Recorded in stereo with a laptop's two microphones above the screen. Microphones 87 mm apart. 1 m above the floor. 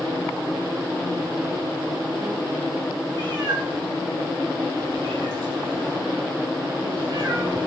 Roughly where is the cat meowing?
Right.